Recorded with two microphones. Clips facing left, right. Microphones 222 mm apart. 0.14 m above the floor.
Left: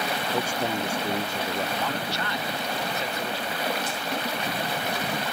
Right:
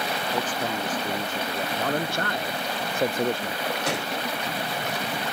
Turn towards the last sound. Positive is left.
turn(degrees=-65)  # may be behind; listen again after turning